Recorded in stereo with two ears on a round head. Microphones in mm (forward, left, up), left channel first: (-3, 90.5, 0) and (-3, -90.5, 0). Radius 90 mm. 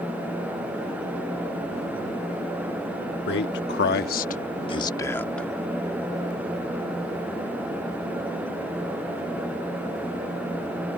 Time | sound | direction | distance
3.3 | a man speaking | 55° left (ahead or behind) | ?